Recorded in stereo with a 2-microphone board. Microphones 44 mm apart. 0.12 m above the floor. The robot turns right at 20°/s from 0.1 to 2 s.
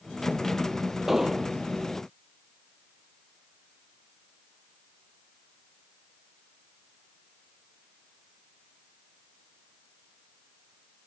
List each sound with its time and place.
1.1 s an explosion: 5° right (ahead or behind); by 1.5 s 15° right (ahead or behind)